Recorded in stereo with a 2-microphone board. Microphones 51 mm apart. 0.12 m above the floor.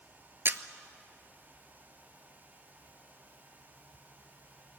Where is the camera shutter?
50° right (ahead or behind), 0.8 m.